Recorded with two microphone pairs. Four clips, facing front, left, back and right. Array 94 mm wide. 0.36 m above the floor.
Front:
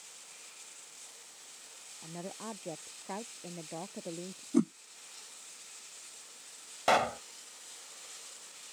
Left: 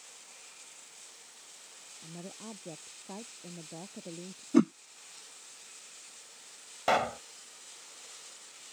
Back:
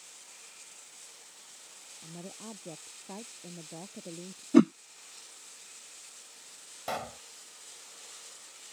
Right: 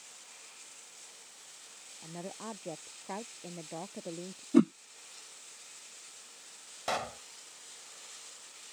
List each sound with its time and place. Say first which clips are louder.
2.0 s a woman speaking: right 3 dB, front 3 dB; 50° right
4.5 s a whoosh: even, back 8 dB; 160° left
6.9 s a pop: left 7 dB, front 10 dB; 30° left